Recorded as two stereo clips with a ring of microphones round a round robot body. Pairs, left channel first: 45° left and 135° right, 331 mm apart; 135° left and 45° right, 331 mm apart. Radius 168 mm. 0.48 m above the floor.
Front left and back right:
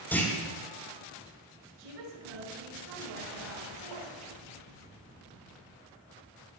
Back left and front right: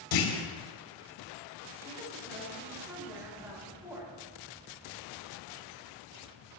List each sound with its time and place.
0.1 s a clunk: 130° left, 3.5 m
1.8 s a woman speaking: 130° right, 8.5 m